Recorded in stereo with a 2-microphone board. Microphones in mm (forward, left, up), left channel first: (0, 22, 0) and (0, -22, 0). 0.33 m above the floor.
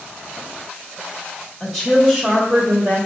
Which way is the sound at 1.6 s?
10° left (ahead or behind).